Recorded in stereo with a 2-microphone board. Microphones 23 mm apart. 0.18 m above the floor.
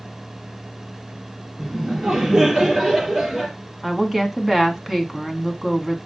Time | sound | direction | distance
1.6 | laughter | 20° right (ahead or behind) | 4 m
3.8 | a woman speaking | 10° right (ahead or behind) | 1.4 m